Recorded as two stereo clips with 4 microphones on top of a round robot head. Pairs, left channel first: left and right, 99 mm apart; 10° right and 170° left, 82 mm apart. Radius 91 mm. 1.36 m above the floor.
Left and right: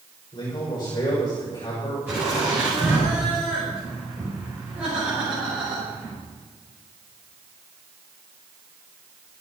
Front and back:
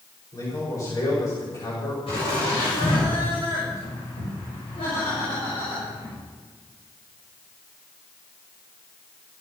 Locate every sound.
0.3 s a man speaking: 35° left, 6.5 m
2.1 s laughter: 15° right, 6 m